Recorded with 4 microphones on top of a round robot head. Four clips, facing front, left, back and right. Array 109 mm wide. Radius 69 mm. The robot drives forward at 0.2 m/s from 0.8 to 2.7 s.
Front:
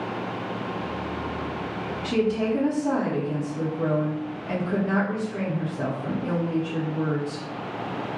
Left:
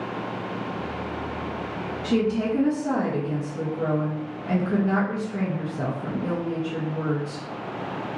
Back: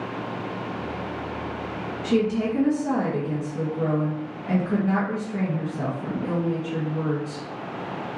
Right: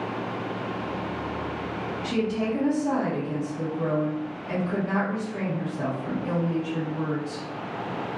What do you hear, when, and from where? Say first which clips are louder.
2.0 s a woman speaking: left 4 dB, back 1 dB; 140° left, 1.2 m; by 7.4 s 145° left, 1.3 m